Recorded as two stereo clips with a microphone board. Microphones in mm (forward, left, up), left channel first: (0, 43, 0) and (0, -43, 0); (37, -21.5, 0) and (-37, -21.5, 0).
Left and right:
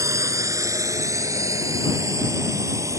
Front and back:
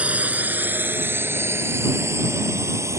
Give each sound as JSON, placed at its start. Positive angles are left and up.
{"t": 0.0, "sound": "a drone", "azimuth_deg": -115}